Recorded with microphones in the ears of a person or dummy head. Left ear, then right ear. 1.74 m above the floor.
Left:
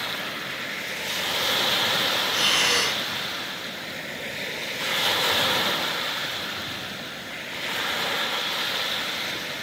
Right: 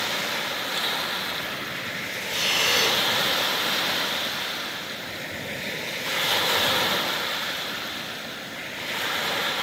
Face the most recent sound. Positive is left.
turn(degrees=40)  # may be behind; listen again after turning